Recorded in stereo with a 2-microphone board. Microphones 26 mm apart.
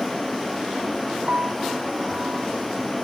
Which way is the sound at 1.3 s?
75° right (ahead or behind).